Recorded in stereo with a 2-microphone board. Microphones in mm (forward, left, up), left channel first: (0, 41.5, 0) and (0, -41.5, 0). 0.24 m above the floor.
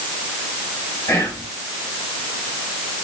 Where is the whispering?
40° left (ahead or behind), 1.6 m.